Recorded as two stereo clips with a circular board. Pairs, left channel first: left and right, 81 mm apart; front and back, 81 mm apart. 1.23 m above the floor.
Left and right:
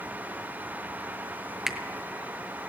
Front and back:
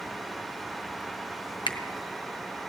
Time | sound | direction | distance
1.7 | a finger snap | 5° right | 0.9 m